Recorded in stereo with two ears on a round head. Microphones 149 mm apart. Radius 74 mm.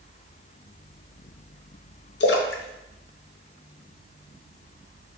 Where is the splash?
75° left (ahead or behind), 0.5 m.